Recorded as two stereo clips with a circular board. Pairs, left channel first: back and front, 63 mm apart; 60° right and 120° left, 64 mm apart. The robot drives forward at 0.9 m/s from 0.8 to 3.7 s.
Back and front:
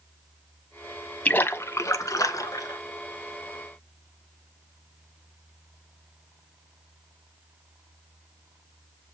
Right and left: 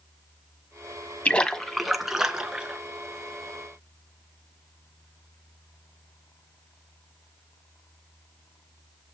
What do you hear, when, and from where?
1.2 s a splash: 120° right, 0.6 m; by 2.8 s 165° right, 1.7 m